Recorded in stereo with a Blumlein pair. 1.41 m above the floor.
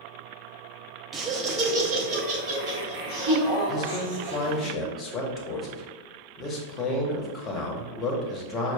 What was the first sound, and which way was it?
Laughter, 20° right.